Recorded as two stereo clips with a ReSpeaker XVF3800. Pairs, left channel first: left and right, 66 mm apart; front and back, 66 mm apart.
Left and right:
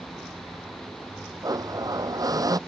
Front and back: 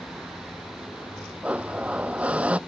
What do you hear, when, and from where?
1.4 s a blender: 110° right